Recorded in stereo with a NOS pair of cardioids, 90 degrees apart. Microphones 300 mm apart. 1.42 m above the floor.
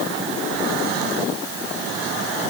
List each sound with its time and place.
Only background noise.